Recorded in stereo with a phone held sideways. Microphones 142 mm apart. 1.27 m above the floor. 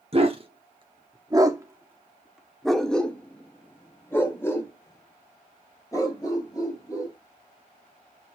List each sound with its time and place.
0.1 s a dog barking: 40° right (ahead or behind), 1.0 m; by 7.1 s 25° left (ahead or behind), 3 m